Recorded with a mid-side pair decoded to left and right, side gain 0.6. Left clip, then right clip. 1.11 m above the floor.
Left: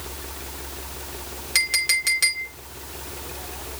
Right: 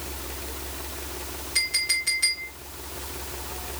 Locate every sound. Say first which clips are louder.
1.6 s a clink: left 4 dB; 55° left, 3.5 m